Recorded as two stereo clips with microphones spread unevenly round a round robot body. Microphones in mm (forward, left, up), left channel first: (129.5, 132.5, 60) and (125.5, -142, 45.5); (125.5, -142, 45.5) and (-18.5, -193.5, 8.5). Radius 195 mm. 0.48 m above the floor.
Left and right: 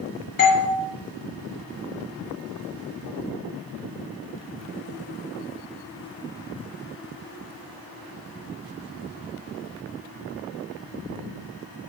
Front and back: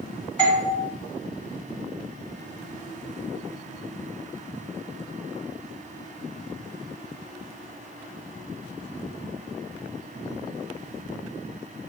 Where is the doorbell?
115° left, 1.9 m.